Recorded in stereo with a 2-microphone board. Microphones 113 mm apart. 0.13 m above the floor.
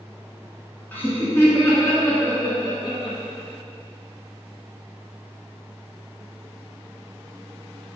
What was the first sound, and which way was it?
Laughter, 15° left (ahead or behind).